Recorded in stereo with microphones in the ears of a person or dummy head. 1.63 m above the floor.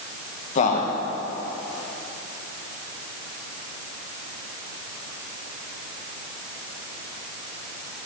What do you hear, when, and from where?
0.6 s a man speaking: 40° left (ahead or behind), 2 m